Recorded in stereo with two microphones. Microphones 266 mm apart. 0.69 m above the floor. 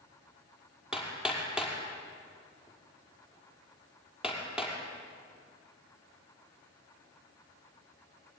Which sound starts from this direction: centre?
Hammering, at 0.9 s.